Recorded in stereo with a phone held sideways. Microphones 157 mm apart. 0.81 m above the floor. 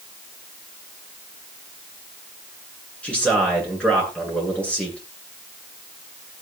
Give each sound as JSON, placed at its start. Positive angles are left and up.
{"t": 3.0, "sound": "a man speaking", "side_deg": 5, "distance_m": 9.5}